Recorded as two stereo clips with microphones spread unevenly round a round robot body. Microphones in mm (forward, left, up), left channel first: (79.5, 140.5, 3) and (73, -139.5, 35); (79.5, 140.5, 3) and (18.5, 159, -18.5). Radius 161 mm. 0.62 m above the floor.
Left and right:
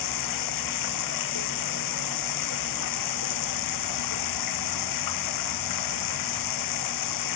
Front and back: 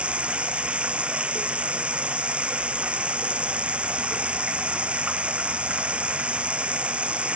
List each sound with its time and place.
0.0 s running water: 90° left